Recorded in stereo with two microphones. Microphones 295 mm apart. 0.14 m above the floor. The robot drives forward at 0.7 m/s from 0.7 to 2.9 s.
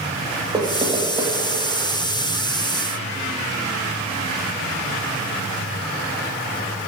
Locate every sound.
0.5 s knocking: 15° right (ahead or behind), 2.5 m; by 1.3 s 10° right (ahead or behind), 3 m